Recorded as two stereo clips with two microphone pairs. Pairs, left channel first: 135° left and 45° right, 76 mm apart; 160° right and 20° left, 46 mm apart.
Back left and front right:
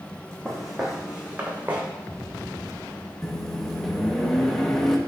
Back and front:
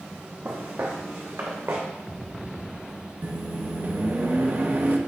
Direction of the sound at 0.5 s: 50° left.